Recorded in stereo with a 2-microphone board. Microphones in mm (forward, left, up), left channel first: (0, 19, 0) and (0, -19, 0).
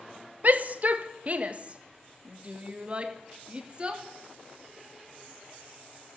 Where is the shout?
50° right (ahead or behind), 1.5 m; by 4.0 s 30° right (ahead or behind), 3.5 m.